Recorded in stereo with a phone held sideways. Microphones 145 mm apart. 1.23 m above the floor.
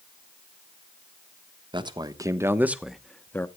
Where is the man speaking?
30° right (ahead or behind), 1.3 m; by 3.5 s 15° left (ahead or behind), 0.9 m.